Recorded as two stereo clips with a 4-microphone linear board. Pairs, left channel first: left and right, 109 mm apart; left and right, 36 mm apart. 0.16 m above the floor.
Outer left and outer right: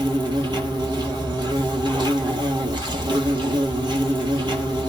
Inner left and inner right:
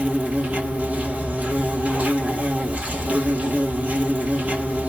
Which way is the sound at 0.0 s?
45° right (ahead or behind).